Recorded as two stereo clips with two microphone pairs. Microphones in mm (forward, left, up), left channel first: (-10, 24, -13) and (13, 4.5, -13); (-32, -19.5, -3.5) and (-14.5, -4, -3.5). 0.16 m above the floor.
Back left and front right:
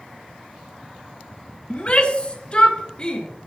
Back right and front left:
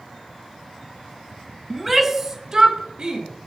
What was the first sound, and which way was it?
A shout, 125° left.